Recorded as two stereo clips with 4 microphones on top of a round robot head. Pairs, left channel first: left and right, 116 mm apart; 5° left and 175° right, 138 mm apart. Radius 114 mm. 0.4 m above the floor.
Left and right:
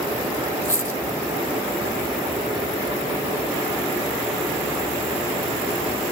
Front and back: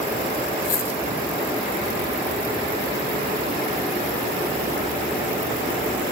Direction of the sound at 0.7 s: 20° left.